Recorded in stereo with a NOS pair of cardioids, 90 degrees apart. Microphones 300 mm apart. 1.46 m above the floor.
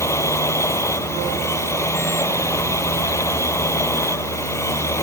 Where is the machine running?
10° left.